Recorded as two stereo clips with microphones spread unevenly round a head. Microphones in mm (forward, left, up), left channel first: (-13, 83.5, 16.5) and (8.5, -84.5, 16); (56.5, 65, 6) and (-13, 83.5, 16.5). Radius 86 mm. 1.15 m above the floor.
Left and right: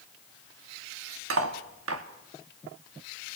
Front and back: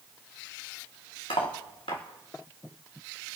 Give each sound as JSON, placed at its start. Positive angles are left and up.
{"t": 1.3, "sound": "cutlery clinking", "azimuth_deg": -70, "distance_m": 1.4}